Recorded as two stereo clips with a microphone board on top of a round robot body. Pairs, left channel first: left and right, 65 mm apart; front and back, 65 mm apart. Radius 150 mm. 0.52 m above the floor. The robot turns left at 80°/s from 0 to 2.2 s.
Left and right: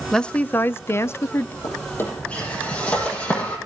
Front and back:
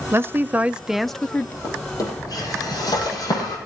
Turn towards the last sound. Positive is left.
turn(degrees=20)